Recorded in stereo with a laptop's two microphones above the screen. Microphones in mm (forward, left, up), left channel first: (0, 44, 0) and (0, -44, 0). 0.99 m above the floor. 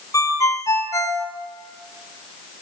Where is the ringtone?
35° left (ahead or behind), 1.7 m.